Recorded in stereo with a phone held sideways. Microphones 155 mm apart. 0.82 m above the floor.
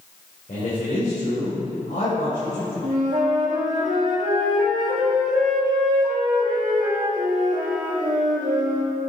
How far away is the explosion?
I don't hear an explosion.